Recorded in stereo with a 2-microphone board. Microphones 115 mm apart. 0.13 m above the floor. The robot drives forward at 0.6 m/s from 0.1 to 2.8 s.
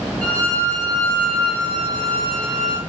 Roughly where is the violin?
Centre.